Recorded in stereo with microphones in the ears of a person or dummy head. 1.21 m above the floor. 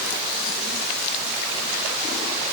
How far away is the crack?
I don't hear a crack.